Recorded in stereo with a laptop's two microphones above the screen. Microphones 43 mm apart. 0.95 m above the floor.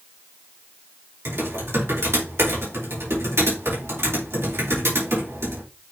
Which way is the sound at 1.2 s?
80° right.